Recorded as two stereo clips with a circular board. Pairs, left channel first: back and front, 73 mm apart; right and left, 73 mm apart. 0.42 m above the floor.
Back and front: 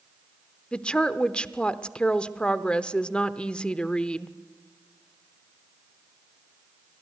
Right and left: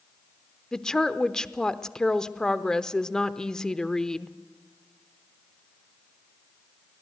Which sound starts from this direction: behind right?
A woman speaking, at 0.7 s.